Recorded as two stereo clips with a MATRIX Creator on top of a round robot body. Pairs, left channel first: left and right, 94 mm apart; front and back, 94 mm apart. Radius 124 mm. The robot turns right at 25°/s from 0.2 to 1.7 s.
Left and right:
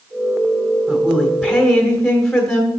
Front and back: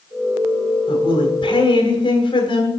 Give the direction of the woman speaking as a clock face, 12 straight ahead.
1 o'clock.